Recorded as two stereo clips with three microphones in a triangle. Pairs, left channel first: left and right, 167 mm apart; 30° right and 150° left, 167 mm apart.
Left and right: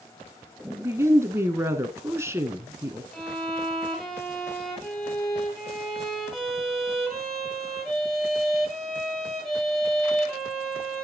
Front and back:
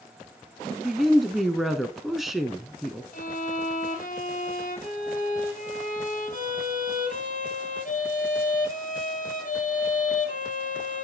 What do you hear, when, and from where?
0.7 s a woman speaking: 125° right, 1.0 m
3.1 s a violin: 5° left, 2.5 m